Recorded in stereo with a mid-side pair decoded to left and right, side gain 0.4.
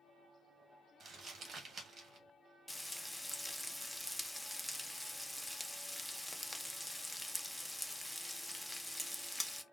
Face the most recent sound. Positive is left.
turn(degrees=0)